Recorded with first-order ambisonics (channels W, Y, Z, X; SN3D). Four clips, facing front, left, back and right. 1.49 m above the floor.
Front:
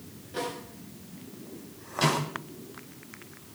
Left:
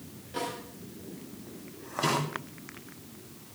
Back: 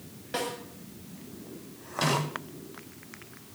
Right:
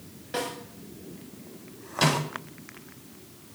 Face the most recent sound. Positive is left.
turn(degrees=-90)